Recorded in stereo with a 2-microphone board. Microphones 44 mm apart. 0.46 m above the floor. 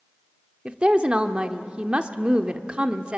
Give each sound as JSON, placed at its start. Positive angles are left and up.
{"t": 0.7, "sound": "a woman speaking", "side_deg": -25, "distance_m": 1.0}